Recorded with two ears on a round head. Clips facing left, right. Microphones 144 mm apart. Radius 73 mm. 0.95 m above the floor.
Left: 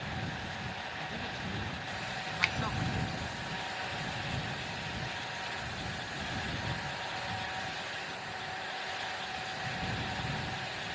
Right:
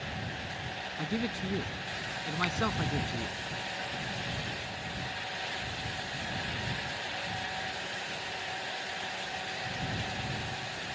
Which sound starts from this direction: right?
A man speaking, at 1.0 s.